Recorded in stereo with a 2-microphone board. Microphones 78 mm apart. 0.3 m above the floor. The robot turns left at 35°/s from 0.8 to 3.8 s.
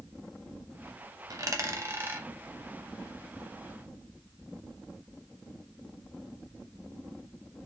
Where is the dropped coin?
50° right (ahead or behind), 0.7 m; by 2.3 s 20° right (ahead or behind), 0.7 m.